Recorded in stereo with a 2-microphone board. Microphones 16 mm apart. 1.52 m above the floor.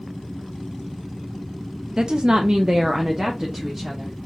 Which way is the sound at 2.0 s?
55° right (ahead or behind).